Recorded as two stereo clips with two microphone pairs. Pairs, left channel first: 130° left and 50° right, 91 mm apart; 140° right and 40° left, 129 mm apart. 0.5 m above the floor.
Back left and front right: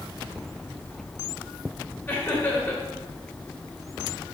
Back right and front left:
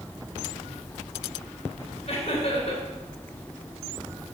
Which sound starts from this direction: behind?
Laughter, at 2.1 s.